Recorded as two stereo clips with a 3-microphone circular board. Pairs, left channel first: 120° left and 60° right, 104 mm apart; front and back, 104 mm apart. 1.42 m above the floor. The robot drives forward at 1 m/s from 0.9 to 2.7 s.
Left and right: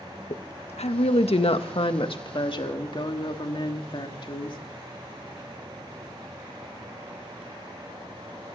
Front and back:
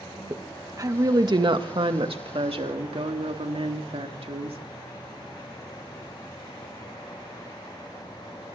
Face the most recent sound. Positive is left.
turn(degrees=155)